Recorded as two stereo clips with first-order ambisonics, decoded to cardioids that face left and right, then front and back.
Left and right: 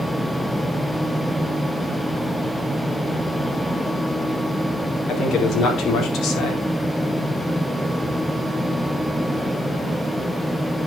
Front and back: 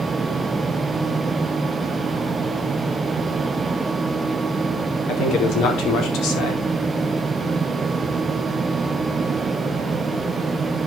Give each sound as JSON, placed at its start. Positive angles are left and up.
{"t": 5.1, "sound": "a man speaking", "azimuth_deg": 35, "distance_m": 4.0}